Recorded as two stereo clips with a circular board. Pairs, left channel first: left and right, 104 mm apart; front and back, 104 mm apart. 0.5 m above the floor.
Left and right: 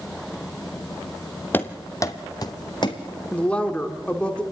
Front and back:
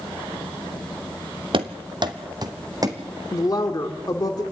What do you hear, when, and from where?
1.5 s running footsteps: 160° left, 1.0 m; by 3.0 s 125° left, 1.7 m
3.3 s a woman speaking: 20° left, 1.4 m